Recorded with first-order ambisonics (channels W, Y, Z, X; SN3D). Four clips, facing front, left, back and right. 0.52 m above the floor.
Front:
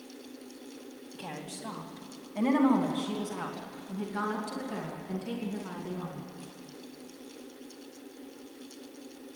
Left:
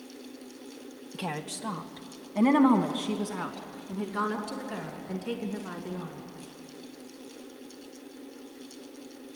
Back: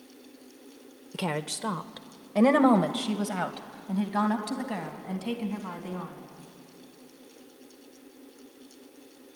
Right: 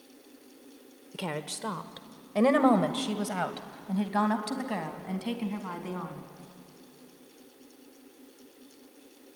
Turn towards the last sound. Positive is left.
turn(degrees=-120)